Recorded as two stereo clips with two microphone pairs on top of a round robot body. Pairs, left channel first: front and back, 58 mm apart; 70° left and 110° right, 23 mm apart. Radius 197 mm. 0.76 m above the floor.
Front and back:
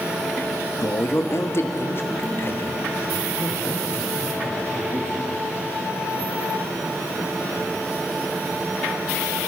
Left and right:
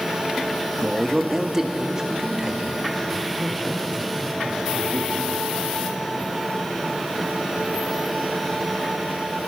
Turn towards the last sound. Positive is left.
turn(degrees=-55)